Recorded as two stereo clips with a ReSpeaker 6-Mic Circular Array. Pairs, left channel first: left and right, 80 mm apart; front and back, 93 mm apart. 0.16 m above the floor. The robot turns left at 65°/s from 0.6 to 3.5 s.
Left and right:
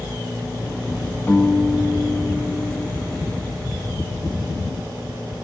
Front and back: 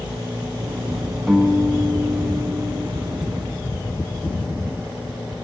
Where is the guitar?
80° left, 1.6 m; by 2.9 s 20° right, 1.6 m.